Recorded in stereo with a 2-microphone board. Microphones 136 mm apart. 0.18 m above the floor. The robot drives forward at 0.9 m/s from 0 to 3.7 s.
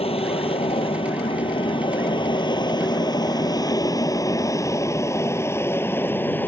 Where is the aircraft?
45° left (ahead or behind); by 6.5 s 15° left (ahead or behind).